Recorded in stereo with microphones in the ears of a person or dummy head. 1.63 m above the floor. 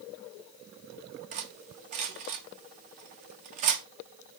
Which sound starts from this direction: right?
Cutlery clinking, at 1.3 s.